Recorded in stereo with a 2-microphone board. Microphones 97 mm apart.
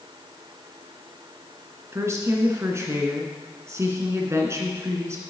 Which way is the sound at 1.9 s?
30° right (ahead or behind).